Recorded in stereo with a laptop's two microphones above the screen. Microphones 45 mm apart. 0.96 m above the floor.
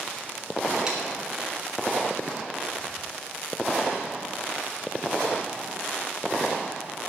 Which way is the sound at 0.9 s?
15° right (ahead or behind).